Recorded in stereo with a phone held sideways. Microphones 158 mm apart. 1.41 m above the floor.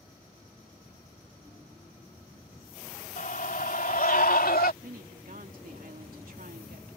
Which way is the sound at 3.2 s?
60° left (ahead or behind).